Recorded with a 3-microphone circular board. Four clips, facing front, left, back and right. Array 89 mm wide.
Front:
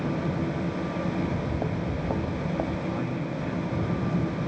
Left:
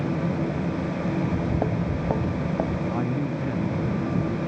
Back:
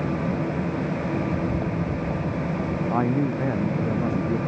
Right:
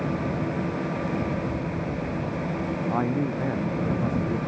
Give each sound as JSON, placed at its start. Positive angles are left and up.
{"t": 1.2, "sound": "footsteps", "azimuth_deg": 95}
{"t": 2.9, "sound": "a man speaking", "azimuth_deg": -155}